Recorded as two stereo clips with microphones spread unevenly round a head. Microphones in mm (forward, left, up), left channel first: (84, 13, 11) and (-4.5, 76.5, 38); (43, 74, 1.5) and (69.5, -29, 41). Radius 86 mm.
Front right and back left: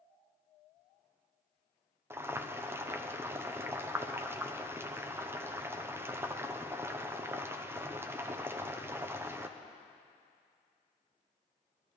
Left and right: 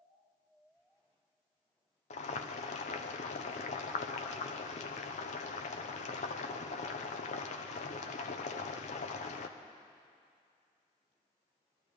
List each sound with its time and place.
2.1 s boiling: 110° left, 0.6 m